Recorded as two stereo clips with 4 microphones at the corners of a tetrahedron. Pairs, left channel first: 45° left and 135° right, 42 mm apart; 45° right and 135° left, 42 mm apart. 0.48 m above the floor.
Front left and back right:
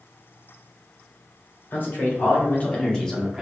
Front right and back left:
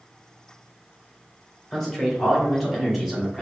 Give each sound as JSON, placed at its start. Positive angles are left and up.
{"t": 1.7, "sound": "a man speaking", "azimuth_deg": 45, "distance_m": 1.9}